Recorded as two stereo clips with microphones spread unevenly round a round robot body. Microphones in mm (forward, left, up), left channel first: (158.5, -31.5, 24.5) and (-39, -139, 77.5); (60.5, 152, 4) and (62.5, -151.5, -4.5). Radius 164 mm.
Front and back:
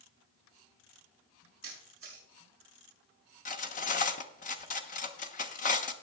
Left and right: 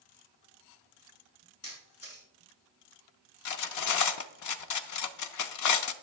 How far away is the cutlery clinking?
About 0.8 m.